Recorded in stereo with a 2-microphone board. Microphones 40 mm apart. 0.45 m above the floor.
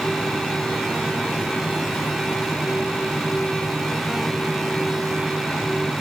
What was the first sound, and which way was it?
Only background noise.